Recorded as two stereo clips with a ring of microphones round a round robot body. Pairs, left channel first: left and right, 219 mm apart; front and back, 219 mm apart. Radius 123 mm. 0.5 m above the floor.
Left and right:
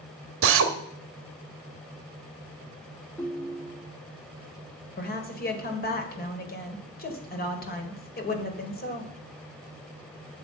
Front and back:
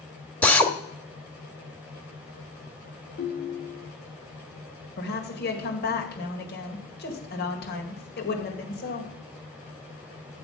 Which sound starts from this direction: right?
A drill, at 0.4 s.